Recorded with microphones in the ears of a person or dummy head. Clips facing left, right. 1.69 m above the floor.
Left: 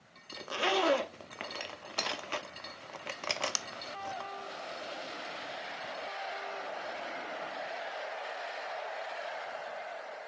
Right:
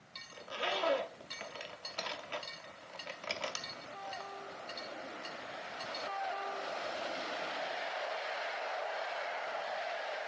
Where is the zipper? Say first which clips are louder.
Left 7 dB; 55° left (ahead or behind), 0.5 m.